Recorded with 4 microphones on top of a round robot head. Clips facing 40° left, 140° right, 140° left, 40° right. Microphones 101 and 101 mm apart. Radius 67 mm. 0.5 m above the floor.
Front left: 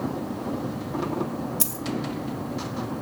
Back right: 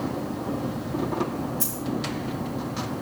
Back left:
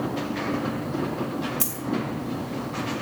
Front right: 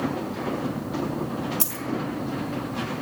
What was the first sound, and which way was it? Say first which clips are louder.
A dropped coin: back right 1 dB, back left 1 dB; 25° left.